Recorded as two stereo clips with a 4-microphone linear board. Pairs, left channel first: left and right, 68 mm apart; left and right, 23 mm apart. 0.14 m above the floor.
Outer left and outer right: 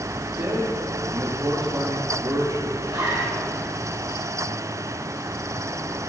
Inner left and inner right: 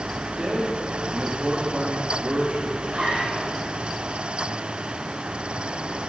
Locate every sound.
0.4 s a man speaking: 65° right (ahead or behind), 7.5 m
2.8 s a zipper: 65° right (ahead or behind), 7.5 m